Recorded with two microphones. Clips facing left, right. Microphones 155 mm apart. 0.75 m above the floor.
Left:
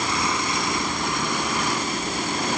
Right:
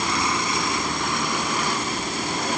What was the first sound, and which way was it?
Only background noise.